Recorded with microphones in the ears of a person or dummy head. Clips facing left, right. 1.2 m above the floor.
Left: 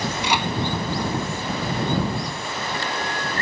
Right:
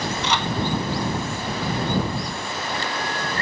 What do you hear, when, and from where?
0.2 s a microwave: 15° left (ahead or behind)